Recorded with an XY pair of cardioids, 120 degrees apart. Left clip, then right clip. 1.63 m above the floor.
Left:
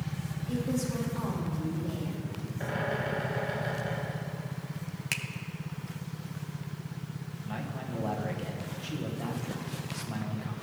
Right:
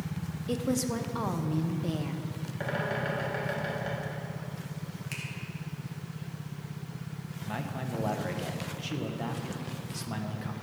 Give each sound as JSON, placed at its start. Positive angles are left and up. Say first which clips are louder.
{"t": 0.5, "sound": "a woman speaking", "louder": "right 3 dB", "azimuth_deg": -70, "distance_m": 1.2}
{"t": 2.6, "sound": "a bird", "louder": "even", "azimuth_deg": -45, "distance_m": 4.0}
{"t": 5.1, "sound": "a finger snap", "louder": "left 7 dB", "azimuth_deg": 55, "distance_m": 0.9}
{"t": 7.4, "sound": "a man speaking", "louder": "right 2 dB", "azimuth_deg": -25, "distance_m": 1.3}